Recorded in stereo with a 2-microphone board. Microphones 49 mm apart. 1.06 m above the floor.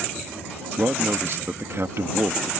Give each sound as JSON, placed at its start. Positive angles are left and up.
{"t": 0.8, "sound": "a man speaking", "side_deg": -60}